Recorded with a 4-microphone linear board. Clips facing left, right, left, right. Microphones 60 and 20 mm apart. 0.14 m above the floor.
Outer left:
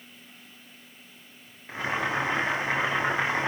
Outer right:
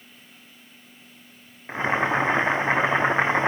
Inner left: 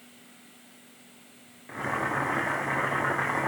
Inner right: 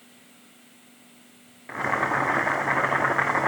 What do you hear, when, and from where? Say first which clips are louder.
1.7 s boiling: outer right 5 dB, inner right 5 dB; 30° right (ahead or behind), 1.8 m